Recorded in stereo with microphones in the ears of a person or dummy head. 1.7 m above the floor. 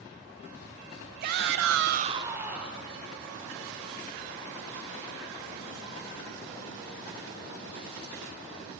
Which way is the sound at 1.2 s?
45° right (ahead or behind).